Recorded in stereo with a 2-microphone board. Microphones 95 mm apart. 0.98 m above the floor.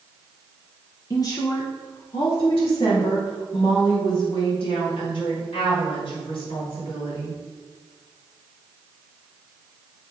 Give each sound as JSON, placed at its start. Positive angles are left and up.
{"t": 1.1, "sound": "a woman speaking", "side_deg": 30, "distance_m": 0.7}